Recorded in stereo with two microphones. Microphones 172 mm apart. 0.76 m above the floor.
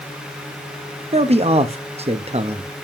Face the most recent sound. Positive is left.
turn(degrees=-35)  # may be behind; listen again after turning